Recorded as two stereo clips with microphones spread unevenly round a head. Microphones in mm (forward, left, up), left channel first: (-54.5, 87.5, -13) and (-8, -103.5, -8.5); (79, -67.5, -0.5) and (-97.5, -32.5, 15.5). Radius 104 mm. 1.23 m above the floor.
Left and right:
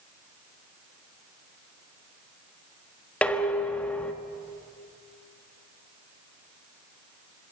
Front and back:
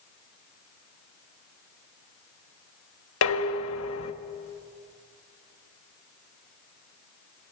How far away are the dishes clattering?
About 1.3 m.